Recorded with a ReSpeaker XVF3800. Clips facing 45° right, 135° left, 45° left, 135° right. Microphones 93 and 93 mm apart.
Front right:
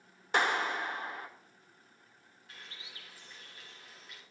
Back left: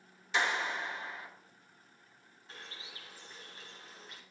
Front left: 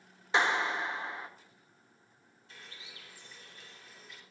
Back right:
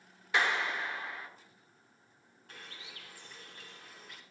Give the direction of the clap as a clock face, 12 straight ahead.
1 o'clock.